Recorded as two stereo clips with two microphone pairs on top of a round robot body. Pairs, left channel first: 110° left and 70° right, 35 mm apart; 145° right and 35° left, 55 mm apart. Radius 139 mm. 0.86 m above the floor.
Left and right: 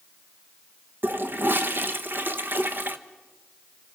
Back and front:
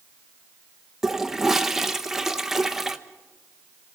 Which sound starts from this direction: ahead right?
A toilet flushing, at 1.0 s.